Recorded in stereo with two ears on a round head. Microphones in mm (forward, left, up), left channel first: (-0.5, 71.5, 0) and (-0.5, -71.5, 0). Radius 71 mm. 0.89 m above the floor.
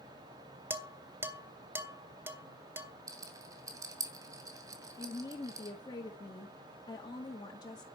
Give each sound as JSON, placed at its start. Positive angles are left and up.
{"t": 0.7, "sound": "dishes clattering", "side_deg": -15, "distance_m": 1.7}
{"t": 3.1, "sound": "a rattle", "side_deg": -20, "distance_m": 2.5}
{"t": 5.0, "sound": "a woman speaking", "side_deg": 25, "distance_m": 2.0}